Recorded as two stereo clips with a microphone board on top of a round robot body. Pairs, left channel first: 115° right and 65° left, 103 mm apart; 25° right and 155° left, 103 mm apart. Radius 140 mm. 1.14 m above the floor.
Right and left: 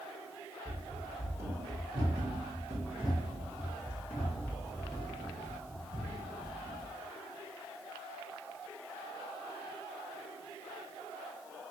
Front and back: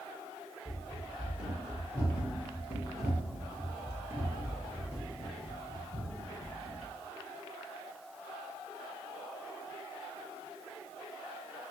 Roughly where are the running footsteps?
Ahead left.